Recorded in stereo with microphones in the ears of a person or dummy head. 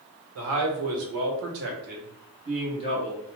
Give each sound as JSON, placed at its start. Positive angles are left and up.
{"t": 0.3, "sound": "a man speaking", "side_deg": -75, "distance_m": 1.2}